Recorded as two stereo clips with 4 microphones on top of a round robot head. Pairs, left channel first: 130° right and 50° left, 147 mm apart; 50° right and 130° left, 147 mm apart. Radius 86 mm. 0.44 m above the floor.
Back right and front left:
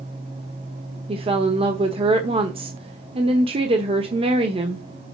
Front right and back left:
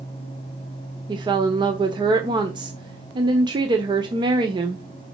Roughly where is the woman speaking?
Left.